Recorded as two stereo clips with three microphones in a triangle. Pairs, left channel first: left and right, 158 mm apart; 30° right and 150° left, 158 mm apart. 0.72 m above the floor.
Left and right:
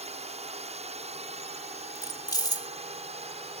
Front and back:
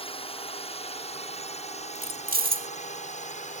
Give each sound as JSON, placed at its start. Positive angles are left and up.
{"t": 0.0, "sound": "a drone", "azimuth_deg": -65}
{"t": 1.9, "sound": "keys jangling", "azimuth_deg": 155}